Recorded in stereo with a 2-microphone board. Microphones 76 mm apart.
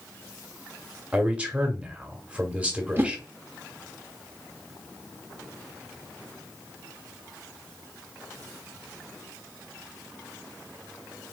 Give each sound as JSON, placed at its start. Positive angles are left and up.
{"t": 1.1, "sound": "a man speaking", "side_deg": -15, "distance_m": 1.5}
{"t": 3.0, "sound": "a whoosh", "side_deg": -30, "distance_m": 0.8}